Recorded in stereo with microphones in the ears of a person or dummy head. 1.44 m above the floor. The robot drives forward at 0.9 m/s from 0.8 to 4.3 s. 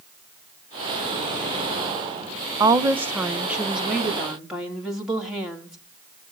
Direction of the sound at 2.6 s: 25° right (ahead or behind).